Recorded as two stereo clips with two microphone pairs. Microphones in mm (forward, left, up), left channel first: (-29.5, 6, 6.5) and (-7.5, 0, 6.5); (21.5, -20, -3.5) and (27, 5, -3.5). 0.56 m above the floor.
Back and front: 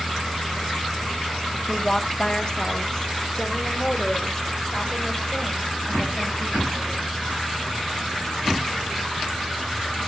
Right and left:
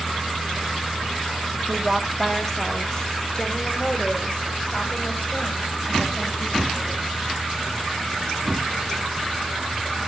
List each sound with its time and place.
1.7 s a woman speaking: 120° left, 0.7 m; by 7.1 s 140° right, 3.5 m